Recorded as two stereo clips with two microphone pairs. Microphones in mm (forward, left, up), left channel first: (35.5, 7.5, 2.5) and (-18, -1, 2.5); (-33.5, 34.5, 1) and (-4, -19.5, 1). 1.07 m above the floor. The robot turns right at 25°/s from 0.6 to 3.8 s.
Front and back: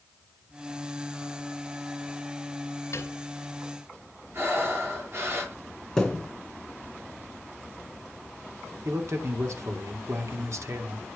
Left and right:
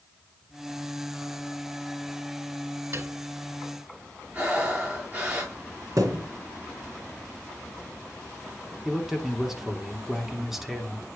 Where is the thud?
70° right, 3 m.